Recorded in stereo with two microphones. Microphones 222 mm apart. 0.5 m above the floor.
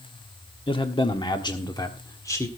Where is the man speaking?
25° left (ahead or behind), 1.4 m; by 2.5 s 15° left (ahead or behind), 1.8 m.